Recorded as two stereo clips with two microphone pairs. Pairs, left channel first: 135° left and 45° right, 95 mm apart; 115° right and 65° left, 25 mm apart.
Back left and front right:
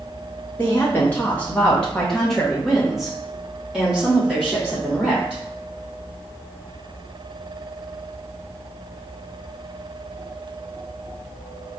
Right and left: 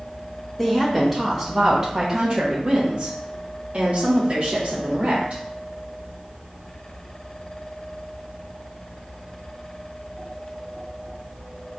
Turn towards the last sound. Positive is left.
turn(degrees=35)